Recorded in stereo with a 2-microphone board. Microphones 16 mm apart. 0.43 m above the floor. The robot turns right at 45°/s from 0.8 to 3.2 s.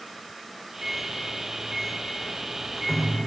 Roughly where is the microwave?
Right.